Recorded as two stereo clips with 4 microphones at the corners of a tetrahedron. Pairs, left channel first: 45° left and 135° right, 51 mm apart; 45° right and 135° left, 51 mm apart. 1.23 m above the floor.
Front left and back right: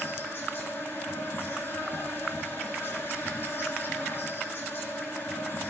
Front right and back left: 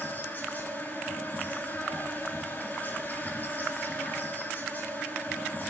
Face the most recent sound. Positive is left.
turn(degrees=10)